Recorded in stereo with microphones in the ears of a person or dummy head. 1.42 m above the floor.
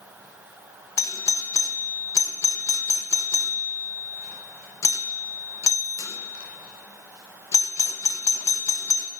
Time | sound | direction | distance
1.0 | a doorbell | 15° left (ahead or behind) | 0.7 m